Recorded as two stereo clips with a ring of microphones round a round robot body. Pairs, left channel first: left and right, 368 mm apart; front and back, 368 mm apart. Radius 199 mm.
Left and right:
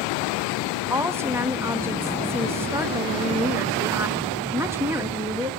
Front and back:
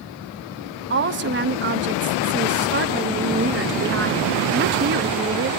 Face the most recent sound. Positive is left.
turn(degrees=-165)